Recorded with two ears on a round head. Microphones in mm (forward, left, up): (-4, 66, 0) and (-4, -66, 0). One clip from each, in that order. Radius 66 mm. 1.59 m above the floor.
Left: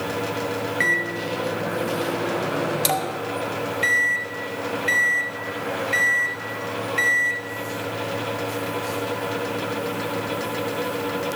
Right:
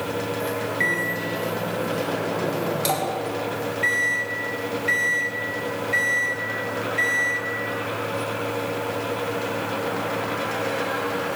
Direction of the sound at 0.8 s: 30° left (ahead or behind).